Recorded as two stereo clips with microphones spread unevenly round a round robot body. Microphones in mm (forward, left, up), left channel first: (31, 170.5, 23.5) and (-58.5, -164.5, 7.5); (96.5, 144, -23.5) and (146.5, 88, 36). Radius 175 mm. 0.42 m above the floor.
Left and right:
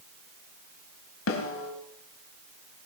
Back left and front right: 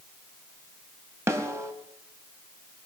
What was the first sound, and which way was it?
A snare drum, 20° left.